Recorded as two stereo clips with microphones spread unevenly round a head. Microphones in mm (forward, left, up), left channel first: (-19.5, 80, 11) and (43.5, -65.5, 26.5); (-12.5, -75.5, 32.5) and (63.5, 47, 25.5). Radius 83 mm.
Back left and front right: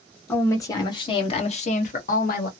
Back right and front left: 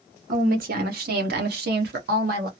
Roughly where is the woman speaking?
Ahead left.